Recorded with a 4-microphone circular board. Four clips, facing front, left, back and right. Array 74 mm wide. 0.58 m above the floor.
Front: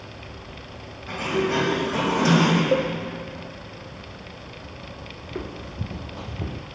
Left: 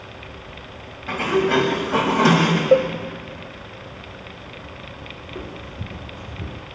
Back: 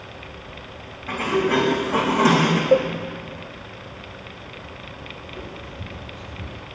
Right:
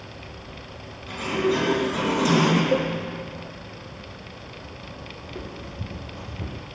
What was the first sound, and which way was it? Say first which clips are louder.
A sliding door: left 5 dB, back 3 dB; 110° left.